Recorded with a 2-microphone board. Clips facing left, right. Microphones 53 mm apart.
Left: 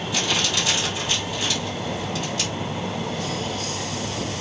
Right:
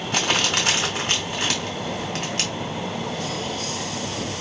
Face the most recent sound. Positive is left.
turn(degrees=-70)  # may be behind; listen again after turning